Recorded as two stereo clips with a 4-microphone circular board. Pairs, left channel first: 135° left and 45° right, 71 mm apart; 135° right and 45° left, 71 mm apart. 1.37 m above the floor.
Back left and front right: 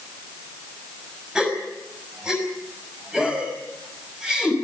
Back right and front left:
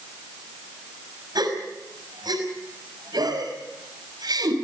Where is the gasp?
35° left, 5.5 m.